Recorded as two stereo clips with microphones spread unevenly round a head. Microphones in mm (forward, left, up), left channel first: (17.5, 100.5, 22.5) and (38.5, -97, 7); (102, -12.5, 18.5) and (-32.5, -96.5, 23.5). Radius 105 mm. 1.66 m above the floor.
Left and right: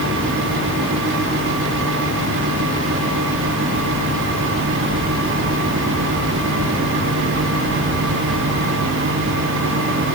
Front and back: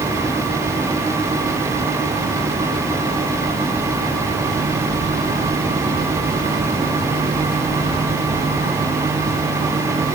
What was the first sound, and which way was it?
Only background noise.